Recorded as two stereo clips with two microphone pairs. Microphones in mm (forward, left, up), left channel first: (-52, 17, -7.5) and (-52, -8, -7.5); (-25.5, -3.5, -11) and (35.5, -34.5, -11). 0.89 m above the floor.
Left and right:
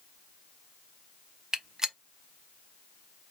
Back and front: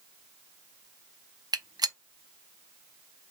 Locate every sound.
1.5 s a gunshot: 25° right, 0.6 m